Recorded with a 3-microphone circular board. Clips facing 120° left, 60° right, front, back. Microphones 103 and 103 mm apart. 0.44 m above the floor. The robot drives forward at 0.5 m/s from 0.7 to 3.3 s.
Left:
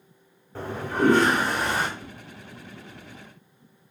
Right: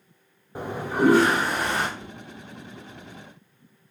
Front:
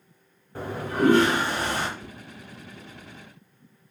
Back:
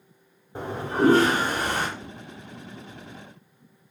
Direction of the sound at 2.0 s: 135° left.